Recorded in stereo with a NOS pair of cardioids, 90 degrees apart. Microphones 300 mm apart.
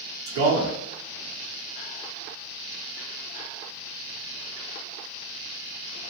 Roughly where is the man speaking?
Right.